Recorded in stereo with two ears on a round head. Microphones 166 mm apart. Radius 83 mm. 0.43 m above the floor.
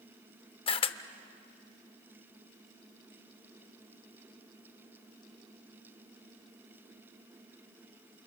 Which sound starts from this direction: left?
A camera shutter, at 0.7 s.